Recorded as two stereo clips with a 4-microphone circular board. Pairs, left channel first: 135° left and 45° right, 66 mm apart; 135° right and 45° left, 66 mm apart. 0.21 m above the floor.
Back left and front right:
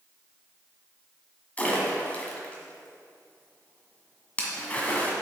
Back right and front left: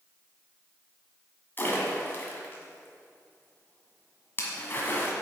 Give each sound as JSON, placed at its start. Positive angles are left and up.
{"t": 1.6, "sound": "a splash", "azimuth_deg": -170, "distance_m": 1.6}